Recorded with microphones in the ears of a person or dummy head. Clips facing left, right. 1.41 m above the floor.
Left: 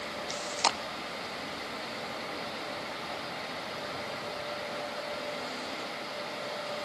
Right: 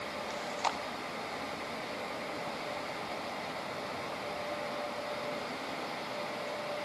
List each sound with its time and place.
0.3 s chewing: 50° left (ahead or behind), 1.0 m